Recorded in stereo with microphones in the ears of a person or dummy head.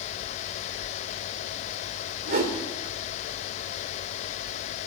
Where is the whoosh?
45° right (ahead or behind), 3 m.